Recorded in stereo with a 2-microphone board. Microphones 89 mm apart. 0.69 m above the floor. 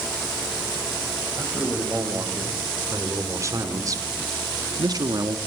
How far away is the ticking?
I don't hear ticking.